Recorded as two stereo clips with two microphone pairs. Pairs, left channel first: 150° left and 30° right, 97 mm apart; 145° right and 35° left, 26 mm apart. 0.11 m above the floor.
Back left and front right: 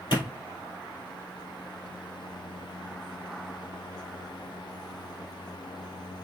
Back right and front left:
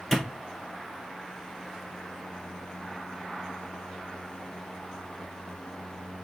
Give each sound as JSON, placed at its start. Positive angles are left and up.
{"t": 0.1, "sound": "a clap", "azimuth_deg": 130, "distance_m": 1.9}